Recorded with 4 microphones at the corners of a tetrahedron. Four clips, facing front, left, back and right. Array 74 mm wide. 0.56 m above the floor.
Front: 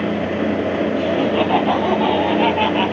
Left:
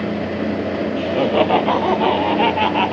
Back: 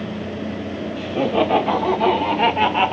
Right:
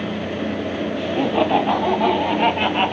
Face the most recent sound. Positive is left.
turn(degrees=140)